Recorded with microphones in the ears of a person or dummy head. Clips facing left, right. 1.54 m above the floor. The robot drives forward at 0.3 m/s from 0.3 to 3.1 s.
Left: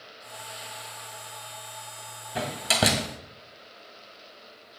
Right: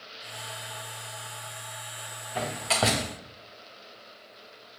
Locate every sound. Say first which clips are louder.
2.4 s a door slam: left 1 dB; 15° left (ahead or behind), 0.9 m